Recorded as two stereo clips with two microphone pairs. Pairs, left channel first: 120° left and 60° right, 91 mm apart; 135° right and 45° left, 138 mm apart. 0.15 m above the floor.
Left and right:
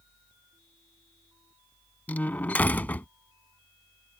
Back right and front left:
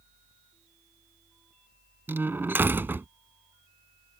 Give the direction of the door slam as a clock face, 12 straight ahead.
9 o'clock.